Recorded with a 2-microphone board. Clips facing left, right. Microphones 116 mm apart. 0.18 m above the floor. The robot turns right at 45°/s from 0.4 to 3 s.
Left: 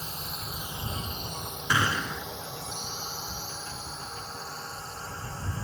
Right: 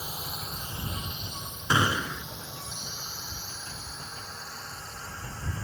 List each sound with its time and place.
0.0 s a drone: 10° right (ahead or behind); by 5.6 s 25° left (ahead or behind)
1.7 s a gunshot: 25° right (ahead or behind); by 2.2 s centre (ahead or behind)